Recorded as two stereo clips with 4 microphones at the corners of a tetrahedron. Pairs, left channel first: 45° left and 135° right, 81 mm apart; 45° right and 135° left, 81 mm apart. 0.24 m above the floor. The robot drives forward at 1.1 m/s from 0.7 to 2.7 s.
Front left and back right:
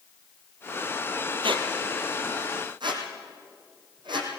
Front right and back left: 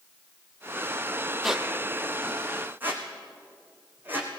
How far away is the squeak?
About 1.4 m.